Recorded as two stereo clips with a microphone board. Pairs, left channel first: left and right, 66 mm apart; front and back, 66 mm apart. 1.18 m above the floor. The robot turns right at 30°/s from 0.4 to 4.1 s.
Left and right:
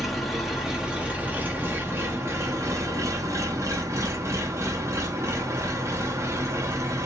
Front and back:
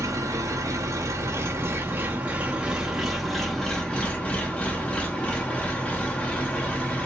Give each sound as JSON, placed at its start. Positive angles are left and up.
{"t": 0.0, "sound": "an engine running", "azimuth_deg": -175, "distance_m": 0.8}